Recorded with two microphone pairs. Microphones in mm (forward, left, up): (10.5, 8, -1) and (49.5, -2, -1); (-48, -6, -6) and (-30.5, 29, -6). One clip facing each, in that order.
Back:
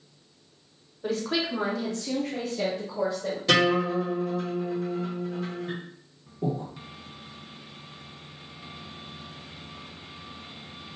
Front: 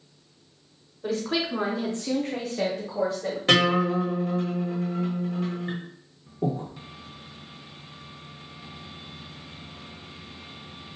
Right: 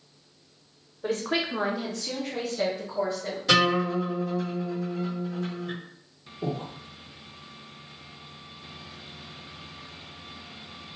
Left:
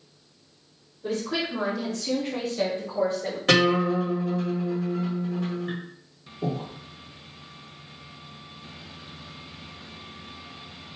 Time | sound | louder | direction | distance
1.0 | a woman speaking | front 1 dB, right 1 dB | 110° right | 0.9 m
3.5 | a guitar | front 1 dB, left 2 dB | 30° left | 1.5 m
6.4 | breathing | front 2 dB, left 2 dB | 25° right | 0.6 m